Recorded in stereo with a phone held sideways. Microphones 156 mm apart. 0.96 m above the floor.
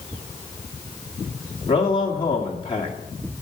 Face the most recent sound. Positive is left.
turn(degrees=35)  # may be behind; listen again after turning